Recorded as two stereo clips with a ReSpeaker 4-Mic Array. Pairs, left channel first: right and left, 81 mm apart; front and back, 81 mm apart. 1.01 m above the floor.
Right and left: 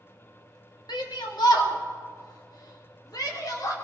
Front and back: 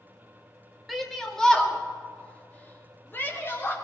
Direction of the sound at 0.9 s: 90° right.